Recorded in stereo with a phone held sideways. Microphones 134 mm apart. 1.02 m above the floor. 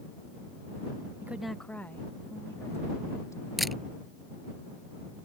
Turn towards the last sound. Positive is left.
turn(degrees=0)  # may be behind; listen again after turning